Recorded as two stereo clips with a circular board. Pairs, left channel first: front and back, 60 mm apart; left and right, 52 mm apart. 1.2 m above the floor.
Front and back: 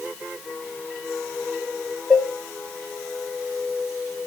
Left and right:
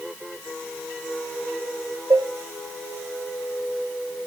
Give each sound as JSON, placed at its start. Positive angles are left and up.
{"t": 2.1, "sound": "dishes clattering", "azimuth_deg": -80, "distance_m": 1.2}